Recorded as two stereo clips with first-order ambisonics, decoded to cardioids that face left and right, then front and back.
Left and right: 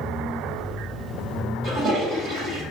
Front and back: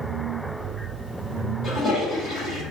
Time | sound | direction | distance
1.6 | a toilet flushing | 45° right | 1.5 m